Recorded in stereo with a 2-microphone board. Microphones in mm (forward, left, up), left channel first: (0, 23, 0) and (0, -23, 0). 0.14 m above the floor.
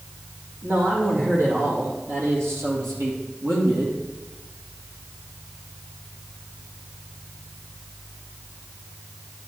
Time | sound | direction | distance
0.6 | a man speaking | 65° right (ahead or behind) | 5.5 m